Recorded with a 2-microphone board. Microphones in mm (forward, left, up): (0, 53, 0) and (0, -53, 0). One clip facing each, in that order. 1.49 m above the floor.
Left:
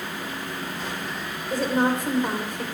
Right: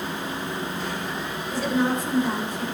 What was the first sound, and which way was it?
A woman speaking, 55° left (ahead or behind).